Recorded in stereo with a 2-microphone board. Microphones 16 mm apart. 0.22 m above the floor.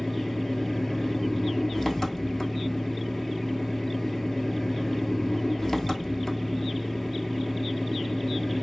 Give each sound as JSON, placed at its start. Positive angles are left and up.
{"t": 0.0, "sound": "an engine running", "side_deg": 10, "distance_m": 0.9}